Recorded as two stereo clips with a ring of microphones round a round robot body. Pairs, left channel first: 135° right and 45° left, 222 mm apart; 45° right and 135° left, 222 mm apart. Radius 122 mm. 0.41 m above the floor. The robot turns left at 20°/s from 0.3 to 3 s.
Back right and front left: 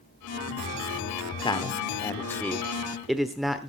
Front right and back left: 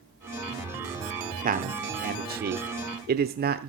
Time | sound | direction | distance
1.4 | a man speaking | 165° left | 1.0 m